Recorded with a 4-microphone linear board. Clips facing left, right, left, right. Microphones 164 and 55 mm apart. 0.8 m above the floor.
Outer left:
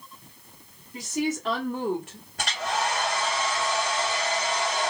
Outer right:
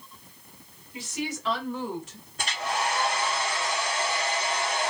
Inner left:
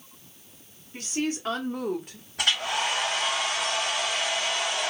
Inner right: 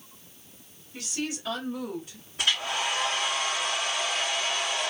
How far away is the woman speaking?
About 2 m.